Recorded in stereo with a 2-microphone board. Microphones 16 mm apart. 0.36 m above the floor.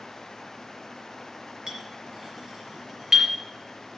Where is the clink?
50° right (ahead or behind), 5 m.